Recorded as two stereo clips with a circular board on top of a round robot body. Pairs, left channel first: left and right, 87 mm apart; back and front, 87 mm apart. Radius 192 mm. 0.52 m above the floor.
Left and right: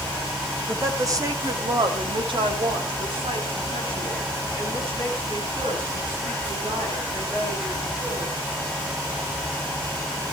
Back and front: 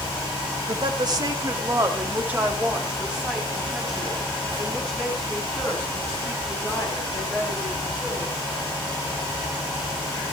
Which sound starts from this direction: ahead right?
A woman speaking, at 0.7 s.